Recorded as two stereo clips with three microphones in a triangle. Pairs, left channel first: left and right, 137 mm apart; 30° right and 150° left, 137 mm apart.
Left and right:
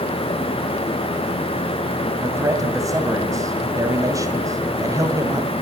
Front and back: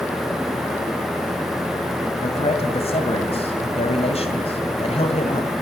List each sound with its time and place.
2.2 s a man speaking: 35° right, 2 m